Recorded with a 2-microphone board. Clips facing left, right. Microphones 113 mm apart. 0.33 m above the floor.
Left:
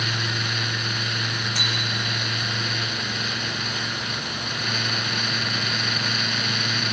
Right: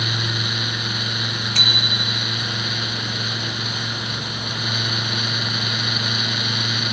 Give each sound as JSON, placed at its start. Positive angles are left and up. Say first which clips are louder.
{"t": 1.6, "sound": "a bicycle bell", "louder": "right 2 dB", "side_deg": -80, "distance_m": 5.0}